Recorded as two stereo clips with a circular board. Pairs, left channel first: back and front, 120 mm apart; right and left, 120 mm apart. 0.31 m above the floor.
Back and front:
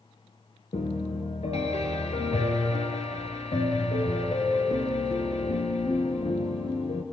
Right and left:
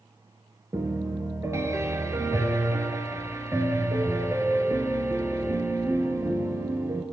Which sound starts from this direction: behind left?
A piano, at 0.7 s.